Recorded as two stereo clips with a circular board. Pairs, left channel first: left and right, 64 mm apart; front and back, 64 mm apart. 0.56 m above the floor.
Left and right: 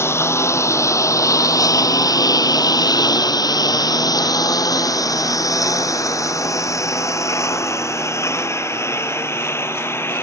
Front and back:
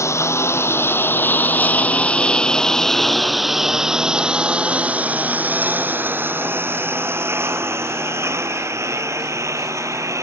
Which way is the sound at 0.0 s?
40° left.